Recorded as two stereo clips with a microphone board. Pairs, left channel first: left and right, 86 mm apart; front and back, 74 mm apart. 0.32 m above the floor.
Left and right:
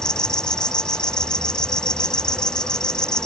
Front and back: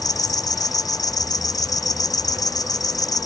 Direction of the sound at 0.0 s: 10° left.